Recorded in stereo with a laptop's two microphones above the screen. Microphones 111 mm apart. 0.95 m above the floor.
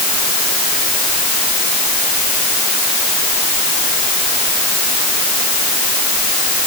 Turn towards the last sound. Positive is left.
No sound to turn to.